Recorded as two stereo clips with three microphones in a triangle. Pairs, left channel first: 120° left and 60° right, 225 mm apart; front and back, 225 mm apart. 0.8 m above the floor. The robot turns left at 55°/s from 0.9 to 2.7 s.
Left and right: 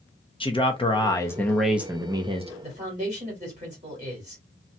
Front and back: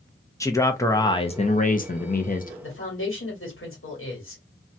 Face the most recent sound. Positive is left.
turn(degrees=-5)